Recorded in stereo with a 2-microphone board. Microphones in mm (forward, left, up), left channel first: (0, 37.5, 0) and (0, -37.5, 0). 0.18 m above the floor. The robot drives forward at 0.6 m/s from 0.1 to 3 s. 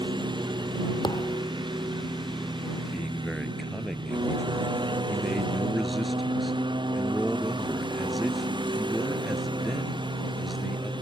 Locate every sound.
0.0 s a lawn mower: 75° right (ahead or behind); by 11.0 s 80° right
1.0 s a thud: 75° left (ahead or behind); by 1.4 s 80° left
2.9 s a man speaking: centre (ahead or behind)